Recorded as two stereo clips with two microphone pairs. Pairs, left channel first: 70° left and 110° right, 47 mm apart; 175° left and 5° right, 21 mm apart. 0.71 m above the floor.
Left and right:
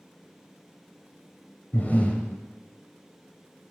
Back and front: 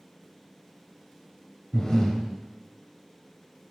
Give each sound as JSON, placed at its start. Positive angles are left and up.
{"t": 1.7, "sound": "breathing", "azimuth_deg": 120, "distance_m": 0.7}